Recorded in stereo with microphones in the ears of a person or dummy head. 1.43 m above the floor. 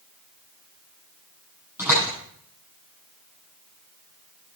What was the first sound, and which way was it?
A door slam, 10° right (ahead or behind).